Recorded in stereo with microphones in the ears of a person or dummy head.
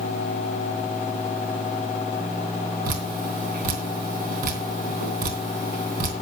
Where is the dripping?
45° right (ahead or behind), 3 m.